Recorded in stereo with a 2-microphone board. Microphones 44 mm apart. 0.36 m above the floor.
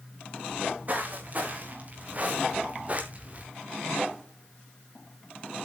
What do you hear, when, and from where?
0.5 s footsteps: 40° right (ahead or behind), 5 m; by 3.5 s 35° right (ahead or behind), 2.5 m